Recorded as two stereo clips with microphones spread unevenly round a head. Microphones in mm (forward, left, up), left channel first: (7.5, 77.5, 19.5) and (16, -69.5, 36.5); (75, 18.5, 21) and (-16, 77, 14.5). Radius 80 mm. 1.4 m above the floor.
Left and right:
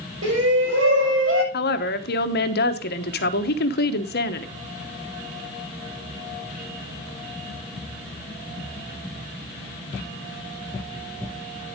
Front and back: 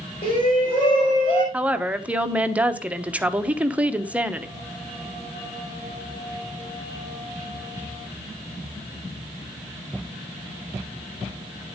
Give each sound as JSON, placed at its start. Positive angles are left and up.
{"t": 0.2, "sound": "a shout", "azimuth_deg": -90, "distance_m": 5.5}
{"t": 1.5, "sound": "a woman speaking", "azimuth_deg": 70, "distance_m": 1.0}